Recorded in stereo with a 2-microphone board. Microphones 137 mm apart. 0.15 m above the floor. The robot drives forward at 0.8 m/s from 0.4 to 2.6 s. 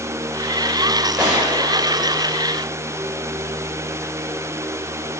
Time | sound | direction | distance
1.2 | a gunshot | 10° right (ahead or behind) | 9 m